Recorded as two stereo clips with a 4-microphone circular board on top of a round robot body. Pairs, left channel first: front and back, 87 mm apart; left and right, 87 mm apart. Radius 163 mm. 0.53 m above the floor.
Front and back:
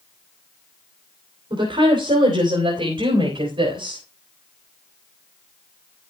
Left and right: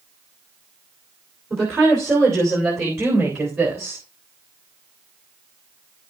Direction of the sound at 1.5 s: 150° right.